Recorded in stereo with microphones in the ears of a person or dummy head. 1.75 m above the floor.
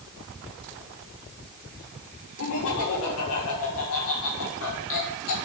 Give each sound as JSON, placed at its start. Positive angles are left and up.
{"t": 2.4, "sound": "laughter", "side_deg": 75, "distance_m": 4.0}